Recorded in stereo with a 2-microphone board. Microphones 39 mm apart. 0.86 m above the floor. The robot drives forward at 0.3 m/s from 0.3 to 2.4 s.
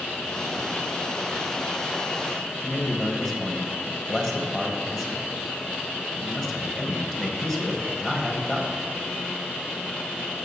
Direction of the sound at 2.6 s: 15° left (ahead or behind).